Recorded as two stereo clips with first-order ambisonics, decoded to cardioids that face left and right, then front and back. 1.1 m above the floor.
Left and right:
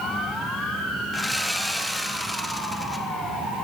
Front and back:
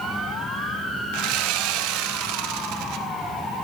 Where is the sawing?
175° right, 0.9 m.